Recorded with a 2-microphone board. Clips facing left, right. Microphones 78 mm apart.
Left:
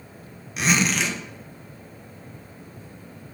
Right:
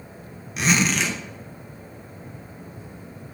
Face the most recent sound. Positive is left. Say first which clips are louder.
# right 1 dB
turn(degrees=0)  # may be behind; listen again after turning